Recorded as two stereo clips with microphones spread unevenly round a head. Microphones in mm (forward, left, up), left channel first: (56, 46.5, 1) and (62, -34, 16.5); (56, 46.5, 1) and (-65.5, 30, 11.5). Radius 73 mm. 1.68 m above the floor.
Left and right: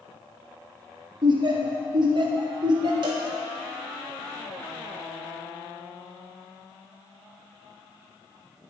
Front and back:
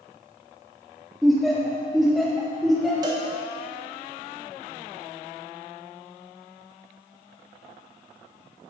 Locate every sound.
1.2 s laughter: 85° right, 1.5 m
3.0 s a cowbell: 110° right, 1.2 m